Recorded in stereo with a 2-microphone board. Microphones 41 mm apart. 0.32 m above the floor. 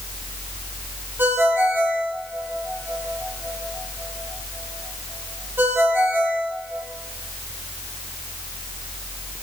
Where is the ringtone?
55° right (ahead or behind), 7.5 m.